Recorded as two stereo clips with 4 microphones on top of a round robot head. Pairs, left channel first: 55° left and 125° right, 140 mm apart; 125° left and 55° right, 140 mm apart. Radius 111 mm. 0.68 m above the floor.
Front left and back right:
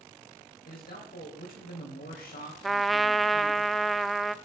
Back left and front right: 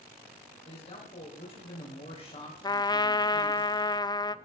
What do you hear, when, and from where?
0.7 s a man speaking: 75° left, 3.5 m
2.6 s a trumpet: 145° left, 0.6 m